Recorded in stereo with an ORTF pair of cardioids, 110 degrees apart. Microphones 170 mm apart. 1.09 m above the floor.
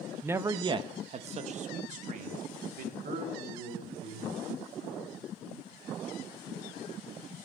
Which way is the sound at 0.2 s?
10° right.